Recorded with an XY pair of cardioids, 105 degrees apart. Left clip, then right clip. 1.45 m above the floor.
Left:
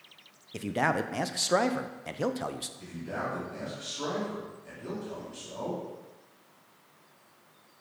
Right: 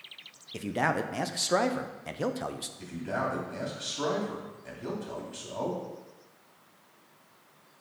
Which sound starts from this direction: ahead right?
A man speaking, at 2.8 s.